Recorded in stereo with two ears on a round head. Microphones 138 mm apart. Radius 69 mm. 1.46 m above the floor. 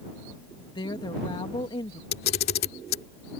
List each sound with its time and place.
0.7 s a woman speaking: 30° left (ahead or behind)
2.1 s a camera shutter: 70° left (ahead or behind)